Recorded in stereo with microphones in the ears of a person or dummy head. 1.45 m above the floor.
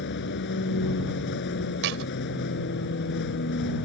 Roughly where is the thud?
Right.